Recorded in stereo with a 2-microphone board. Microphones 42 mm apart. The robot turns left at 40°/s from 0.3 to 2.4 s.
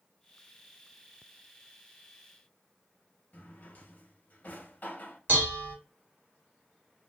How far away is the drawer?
About 0.7 m.